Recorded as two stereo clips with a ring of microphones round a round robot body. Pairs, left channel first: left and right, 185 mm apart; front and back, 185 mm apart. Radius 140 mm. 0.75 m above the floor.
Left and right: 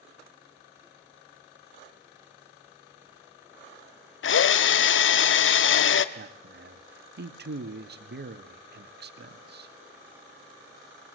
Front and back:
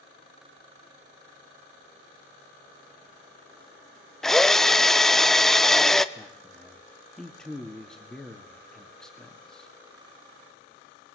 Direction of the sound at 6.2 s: 85° right.